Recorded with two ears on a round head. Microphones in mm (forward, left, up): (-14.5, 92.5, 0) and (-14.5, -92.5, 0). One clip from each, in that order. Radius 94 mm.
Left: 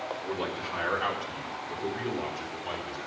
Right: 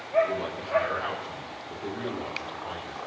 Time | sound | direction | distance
0.2 | a man speaking | 60° left (ahead or behind) | 3.5 m